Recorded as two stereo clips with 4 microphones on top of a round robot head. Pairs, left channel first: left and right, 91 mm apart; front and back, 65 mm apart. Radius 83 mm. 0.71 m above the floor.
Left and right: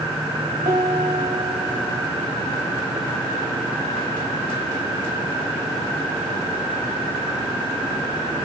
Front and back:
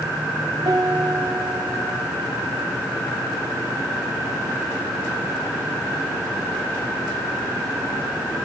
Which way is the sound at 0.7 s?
125° right.